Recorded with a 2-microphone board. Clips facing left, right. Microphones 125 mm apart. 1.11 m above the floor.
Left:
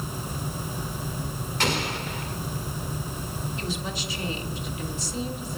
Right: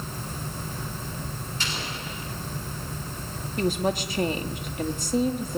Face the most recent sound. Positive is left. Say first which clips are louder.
# right 12 dB
turn(degrees=-55)  # may be behind; listen again after turning